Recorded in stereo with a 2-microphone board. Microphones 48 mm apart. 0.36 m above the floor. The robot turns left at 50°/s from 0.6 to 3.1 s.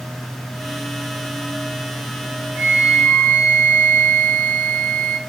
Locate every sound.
2.5 s a flute: 45° left (ahead or behind), 2.5 m; by 5.2 s 55° left (ahead or behind), 2.5 m